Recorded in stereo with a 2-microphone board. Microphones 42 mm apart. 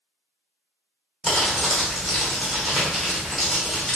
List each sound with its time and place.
1.2 s crumpling: centre (ahead or behind), 1.0 m